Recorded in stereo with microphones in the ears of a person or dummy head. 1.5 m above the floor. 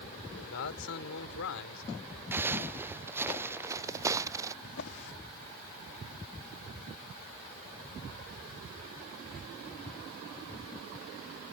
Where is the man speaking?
65° left (ahead or behind); by 1.8 s 70° left (ahead or behind).